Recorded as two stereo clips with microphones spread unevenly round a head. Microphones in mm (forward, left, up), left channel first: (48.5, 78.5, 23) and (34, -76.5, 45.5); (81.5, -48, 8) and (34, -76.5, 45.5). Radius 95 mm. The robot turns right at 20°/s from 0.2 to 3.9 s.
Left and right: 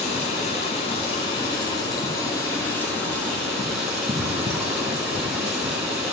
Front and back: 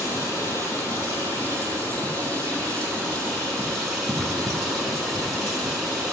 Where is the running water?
120° left, 1.1 m; by 6.1 s 165° right, 1.1 m.